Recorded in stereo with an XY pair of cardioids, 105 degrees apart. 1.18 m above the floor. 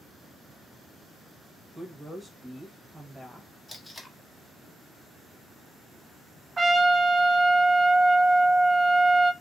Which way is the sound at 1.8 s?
5° right.